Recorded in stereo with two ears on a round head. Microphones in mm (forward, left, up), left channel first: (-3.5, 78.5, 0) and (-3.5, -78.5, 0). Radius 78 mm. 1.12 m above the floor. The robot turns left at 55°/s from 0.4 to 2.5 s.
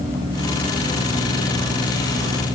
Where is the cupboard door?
I don't hear a cupboard door.